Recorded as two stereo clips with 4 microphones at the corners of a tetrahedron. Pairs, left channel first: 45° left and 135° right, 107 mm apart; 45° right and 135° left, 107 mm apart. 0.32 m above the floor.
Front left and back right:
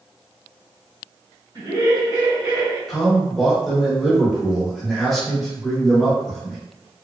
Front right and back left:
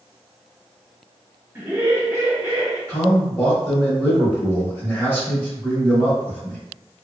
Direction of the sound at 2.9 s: 50° right.